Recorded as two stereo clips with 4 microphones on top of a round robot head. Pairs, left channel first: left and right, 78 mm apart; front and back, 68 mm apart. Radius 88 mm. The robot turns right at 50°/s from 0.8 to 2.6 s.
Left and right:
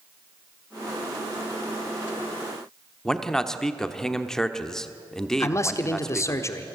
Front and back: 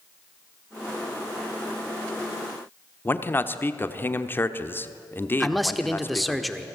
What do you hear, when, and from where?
3.0 s a man speaking: 15° left, 1.1 m
5.4 s a man speaking: 85° left, 1.1 m